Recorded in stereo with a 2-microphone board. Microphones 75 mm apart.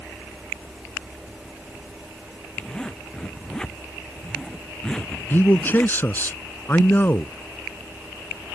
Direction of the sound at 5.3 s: 25° left (ahead or behind).